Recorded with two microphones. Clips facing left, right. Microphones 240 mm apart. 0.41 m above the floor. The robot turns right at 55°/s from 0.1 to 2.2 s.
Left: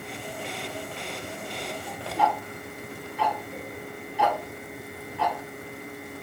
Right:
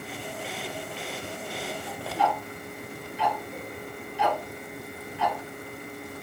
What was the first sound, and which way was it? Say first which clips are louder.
Ticking: left 1 dB; 65° left (ahead or behind).